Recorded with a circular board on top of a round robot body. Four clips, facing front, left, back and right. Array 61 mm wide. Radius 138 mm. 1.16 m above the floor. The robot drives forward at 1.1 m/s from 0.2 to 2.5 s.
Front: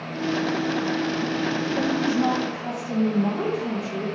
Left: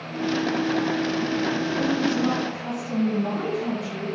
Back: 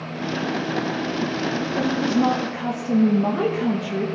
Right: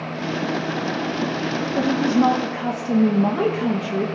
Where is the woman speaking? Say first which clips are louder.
Right 7 dB, back 3 dB; 100° right, 1.8 m; by 4.0 s 120° right, 2 m.